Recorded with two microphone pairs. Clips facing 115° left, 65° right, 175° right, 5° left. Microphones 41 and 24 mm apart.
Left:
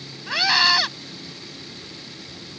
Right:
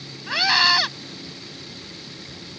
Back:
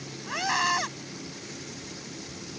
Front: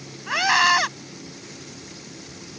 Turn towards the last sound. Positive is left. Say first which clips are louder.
# even, front 8 dB
turn(degrees=20)